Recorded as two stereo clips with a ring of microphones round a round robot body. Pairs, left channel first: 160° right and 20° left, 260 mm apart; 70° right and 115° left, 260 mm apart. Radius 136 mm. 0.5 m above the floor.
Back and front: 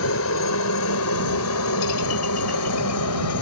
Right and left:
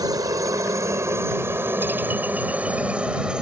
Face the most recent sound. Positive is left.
turn(degrees=-160)